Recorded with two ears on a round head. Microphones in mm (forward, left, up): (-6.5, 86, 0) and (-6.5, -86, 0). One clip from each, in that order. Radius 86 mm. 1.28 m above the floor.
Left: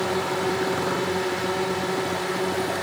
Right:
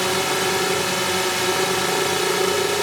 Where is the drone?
60° right (ahead or behind).